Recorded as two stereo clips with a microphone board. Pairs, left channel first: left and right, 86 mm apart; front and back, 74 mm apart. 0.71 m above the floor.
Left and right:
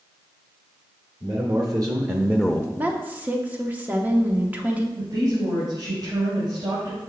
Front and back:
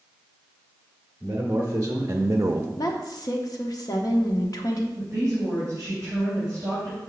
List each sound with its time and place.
1.2 s a man speaking: 120° right, 1.5 m; by 2.7 s 130° left, 0.5 m
2.8 s a woman speaking: 20° right, 1.1 m
5.0 s a woman speaking: 130° right, 3.5 m